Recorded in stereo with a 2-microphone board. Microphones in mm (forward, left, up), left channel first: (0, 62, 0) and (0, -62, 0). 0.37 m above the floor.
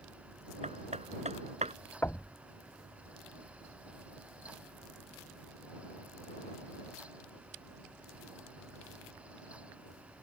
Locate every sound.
0.6 s hammering: 70° right (ahead or behind)
2.0 s knocking: 15° left (ahead or behind)